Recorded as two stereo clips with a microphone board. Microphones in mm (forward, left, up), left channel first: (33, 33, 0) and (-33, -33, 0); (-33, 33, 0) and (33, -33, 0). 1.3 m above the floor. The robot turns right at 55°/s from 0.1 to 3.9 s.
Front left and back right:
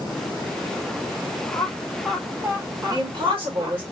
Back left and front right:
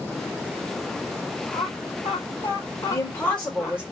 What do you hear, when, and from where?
1.5 s laughter: 105° left, 1.6 m; by 3.8 s 130° right, 1.6 m
2.9 s a woman speaking: 170° right, 1.8 m; by 3.8 s 120° right, 1.8 m